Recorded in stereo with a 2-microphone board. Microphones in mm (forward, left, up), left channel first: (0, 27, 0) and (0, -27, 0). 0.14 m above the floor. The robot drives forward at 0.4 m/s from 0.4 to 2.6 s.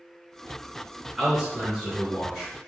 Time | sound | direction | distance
1.2 | a man speaking | 10° right (ahead or behind) | 1.8 m